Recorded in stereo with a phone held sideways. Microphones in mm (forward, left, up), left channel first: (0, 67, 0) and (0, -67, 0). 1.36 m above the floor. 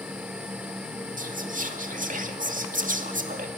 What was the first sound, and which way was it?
A fan, 10° right (ahead or behind).